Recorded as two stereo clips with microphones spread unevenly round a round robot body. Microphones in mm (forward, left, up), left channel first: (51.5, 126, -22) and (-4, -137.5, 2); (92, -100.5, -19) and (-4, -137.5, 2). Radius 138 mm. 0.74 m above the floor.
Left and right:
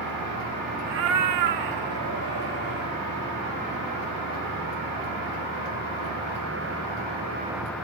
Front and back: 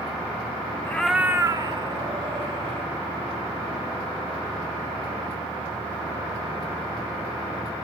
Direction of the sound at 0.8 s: 50° right.